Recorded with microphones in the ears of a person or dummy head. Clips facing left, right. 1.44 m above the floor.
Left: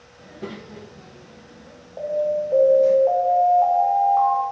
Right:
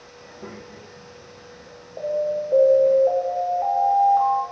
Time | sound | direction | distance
0.2 | a child speaking | 30° left (ahead or behind) | 0.9 m
2.0 | an alarm | 10° right (ahead or behind) | 2 m